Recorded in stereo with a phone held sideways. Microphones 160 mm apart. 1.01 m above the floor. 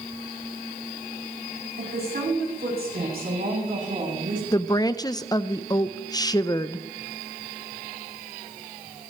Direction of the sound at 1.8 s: 85° right.